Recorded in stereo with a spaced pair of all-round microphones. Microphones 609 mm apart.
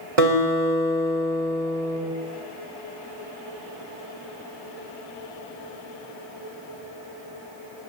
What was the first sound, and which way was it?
A guitar, 60° right (ahead or behind).